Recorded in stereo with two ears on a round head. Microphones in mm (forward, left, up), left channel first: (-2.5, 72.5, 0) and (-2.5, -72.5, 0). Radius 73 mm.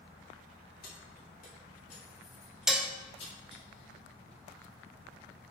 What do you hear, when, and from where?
0.8 s keys jangling: 65° left (ahead or behind), 3.5 m; by 3.6 s 35° left (ahead or behind), 3.5 m
2.7 s dishes clattering: 5° right (ahead or behind), 0.7 m